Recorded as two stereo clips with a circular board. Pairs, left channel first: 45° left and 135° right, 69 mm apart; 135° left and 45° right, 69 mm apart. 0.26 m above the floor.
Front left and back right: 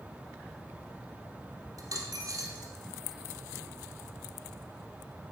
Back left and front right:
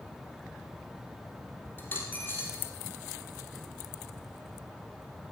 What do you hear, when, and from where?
1.8 s a dropped coin: 165° right, 2.5 m